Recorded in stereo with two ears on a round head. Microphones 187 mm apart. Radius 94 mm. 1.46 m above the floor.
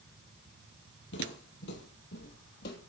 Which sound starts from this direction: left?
Footsteps, at 1.1 s.